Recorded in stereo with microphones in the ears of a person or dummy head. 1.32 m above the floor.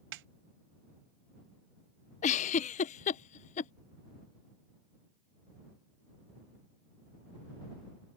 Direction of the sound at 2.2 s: 35° left (ahead or behind).